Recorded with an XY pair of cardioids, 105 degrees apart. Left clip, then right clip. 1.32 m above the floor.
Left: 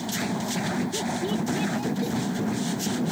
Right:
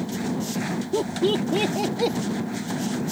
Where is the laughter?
60° right; by 2.2 s 70° right.